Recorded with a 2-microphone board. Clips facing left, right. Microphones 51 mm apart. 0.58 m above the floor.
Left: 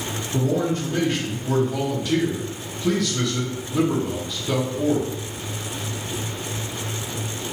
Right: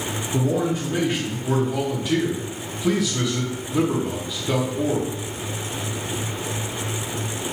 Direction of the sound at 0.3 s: 10° right (ahead or behind).